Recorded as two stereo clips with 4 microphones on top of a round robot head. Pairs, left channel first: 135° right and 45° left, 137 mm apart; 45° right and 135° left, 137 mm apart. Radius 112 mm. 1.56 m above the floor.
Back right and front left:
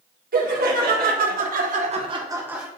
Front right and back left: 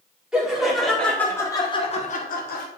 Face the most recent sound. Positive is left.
turn(degrees=-40)